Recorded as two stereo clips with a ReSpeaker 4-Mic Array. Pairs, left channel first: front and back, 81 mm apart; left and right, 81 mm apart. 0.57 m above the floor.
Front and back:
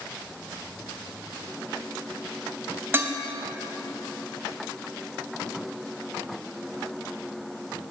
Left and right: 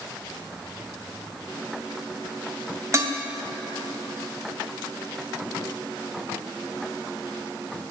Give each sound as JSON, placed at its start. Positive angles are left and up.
{"t": 2.9, "sound": "dishes clattering", "azimuth_deg": -130, "distance_m": 0.7}